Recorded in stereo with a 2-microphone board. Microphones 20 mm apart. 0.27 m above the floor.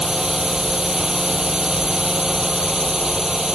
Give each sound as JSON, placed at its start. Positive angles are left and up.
{"t": 0.0, "sound": "a drone", "side_deg": -30}